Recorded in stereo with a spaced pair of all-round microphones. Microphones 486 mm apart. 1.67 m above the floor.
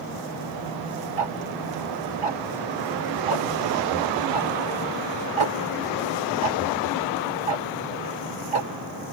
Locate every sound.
1.2 s ticking: 70° right (ahead or behind)